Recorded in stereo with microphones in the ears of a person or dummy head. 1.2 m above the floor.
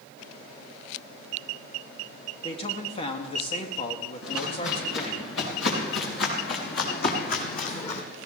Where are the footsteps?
80° left, 7.5 m; by 8.0 s 35° left (ahead or behind), 3 m.